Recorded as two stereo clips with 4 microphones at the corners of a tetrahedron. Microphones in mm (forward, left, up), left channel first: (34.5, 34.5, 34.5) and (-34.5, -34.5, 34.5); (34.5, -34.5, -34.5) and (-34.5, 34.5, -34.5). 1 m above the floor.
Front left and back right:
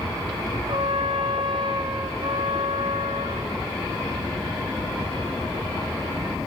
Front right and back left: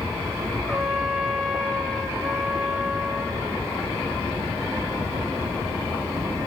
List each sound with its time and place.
0.7 s a trumpet: 130° right, 2.5 m